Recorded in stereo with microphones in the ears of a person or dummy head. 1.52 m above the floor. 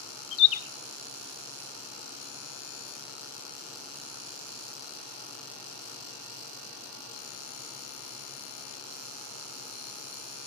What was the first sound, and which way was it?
A bird, 30° left (ahead or behind).